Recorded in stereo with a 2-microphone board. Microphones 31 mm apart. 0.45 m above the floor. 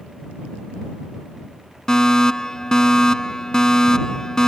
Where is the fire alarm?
20° left (ahead or behind).